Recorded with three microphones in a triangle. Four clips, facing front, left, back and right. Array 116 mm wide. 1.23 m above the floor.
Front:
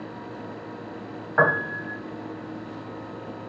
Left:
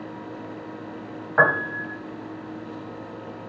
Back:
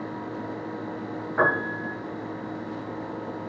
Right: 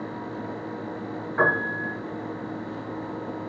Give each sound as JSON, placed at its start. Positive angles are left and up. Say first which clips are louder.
{"t": 1.4, "sound": "a piano", "louder": "left 3 dB, front 2 dB", "azimuth_deg": 60, "distance_m": 2.5}